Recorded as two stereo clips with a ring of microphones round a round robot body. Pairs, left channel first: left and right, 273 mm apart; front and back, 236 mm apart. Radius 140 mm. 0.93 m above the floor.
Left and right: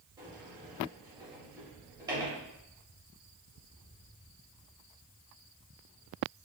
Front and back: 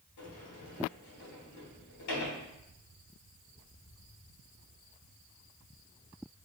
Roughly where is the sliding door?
Ahead.